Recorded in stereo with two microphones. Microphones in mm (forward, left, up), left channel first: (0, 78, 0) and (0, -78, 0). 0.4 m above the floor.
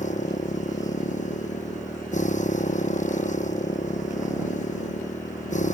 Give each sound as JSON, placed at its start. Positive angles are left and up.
{"t": 0.0, "sound": "a motorcycle", "side_deg": 50}